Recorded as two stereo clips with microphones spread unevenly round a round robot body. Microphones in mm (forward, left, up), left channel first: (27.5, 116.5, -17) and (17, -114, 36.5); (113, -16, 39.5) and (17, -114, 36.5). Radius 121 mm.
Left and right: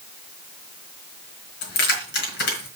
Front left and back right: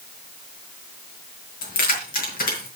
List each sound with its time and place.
1.6 s keys jangling: 50° left, 3 m